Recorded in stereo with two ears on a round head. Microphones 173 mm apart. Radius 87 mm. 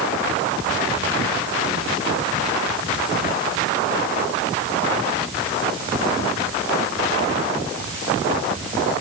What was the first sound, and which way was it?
Only background noise.